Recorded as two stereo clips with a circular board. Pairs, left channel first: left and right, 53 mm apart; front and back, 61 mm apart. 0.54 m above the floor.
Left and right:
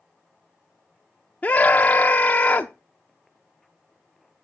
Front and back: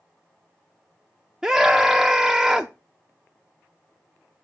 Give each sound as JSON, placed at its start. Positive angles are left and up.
{"t": 1.4, "sound": "a scream", "azimuth_deg": 105, "distance_m": 0.8}